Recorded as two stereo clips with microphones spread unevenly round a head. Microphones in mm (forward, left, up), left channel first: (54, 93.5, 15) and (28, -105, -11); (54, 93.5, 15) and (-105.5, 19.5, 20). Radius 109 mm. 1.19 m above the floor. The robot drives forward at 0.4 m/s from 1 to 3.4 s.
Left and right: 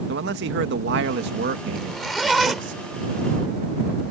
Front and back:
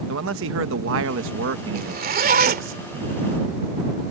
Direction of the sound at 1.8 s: 170° left.